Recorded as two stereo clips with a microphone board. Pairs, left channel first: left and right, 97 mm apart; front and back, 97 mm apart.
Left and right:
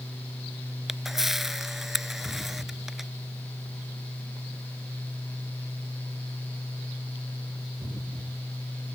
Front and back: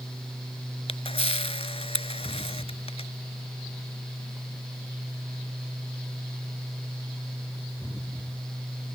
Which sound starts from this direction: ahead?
A camera shutter, at 0.9 s.